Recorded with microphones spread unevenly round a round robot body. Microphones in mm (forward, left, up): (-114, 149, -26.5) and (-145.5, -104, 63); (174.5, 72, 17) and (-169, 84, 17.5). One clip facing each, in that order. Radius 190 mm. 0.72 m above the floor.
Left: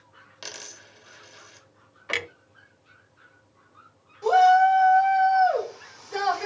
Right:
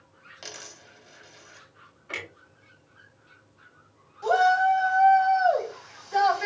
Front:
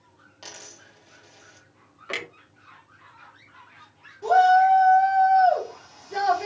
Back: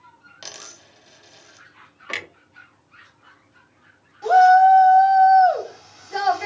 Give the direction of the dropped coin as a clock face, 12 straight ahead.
8 o'clock.